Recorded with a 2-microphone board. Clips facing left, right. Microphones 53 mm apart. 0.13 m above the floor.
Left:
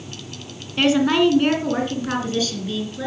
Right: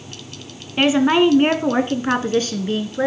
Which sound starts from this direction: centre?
A woman speaking, at 0.8 s.